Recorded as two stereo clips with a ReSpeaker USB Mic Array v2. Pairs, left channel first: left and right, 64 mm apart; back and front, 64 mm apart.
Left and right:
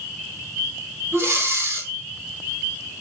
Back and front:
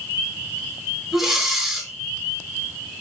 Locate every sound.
1.1 s breathing: 85° right, 1.7 m